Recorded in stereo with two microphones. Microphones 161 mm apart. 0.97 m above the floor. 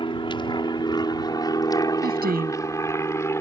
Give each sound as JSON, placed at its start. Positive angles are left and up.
{"t": 0.0, "sound": "an aircraft", "side_deg": 30}
{"t": 2.0, "sound": "a woman speaking", "side_deg": -70}